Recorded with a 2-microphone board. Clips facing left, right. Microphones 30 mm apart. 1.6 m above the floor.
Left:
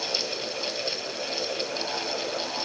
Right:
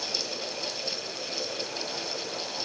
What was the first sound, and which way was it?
Only background noise.